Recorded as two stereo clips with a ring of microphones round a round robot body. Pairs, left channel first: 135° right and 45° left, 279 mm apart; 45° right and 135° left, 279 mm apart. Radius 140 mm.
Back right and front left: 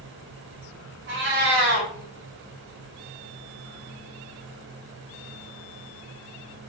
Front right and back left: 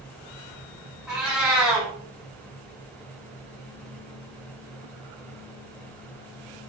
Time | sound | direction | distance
1.1 | a cat meowing | 50° left | 1.0 m